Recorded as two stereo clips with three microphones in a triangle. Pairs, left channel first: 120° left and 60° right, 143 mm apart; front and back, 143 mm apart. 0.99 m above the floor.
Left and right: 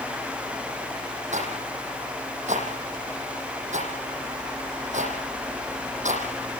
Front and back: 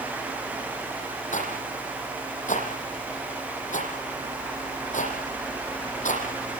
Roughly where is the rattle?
Ahead right.